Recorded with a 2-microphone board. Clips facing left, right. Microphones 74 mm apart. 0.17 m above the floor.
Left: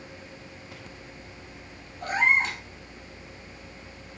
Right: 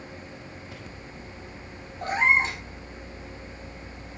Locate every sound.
2.0 s a cat meowing: 25° right (ahead or behind), 1.9 m